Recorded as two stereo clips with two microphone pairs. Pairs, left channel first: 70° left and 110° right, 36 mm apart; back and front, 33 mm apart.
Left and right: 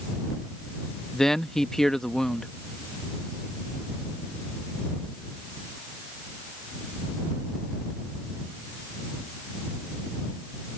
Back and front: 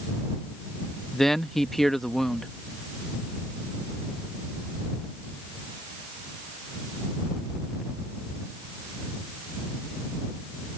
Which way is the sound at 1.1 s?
115° left.